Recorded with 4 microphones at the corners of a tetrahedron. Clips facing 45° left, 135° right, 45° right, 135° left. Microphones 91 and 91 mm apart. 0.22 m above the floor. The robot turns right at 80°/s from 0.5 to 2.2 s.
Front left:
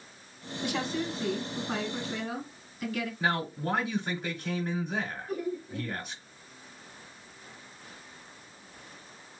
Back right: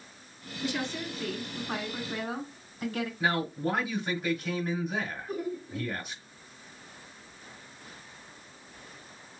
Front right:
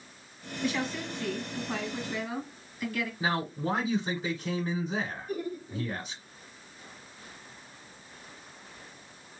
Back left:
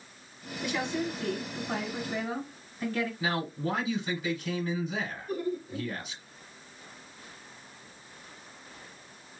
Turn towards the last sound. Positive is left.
turn(degrees=165)